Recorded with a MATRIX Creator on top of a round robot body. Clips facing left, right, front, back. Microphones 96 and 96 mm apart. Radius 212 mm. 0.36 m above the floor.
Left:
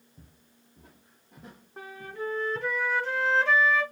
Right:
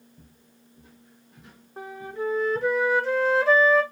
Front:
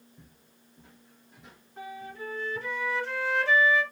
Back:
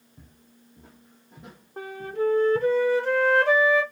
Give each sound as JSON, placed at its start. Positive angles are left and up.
{"t": 0.2, "sound": "footsteps", "azimuth_deg": 130, "distance_m": 1.8}
{"t": 1.8, "sound": "a flute", "azimuth_deg": -175, "distance_m": 2.0}